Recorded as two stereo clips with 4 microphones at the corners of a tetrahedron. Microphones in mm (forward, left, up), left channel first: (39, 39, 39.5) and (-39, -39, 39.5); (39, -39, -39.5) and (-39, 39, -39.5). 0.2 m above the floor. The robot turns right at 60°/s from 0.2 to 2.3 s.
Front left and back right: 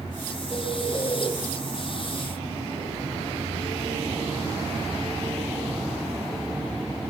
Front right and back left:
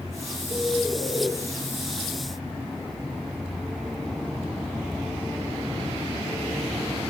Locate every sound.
0.5 s a bird: 15° right, 1.2 m; by 1.3 s 35° left, 1.2 m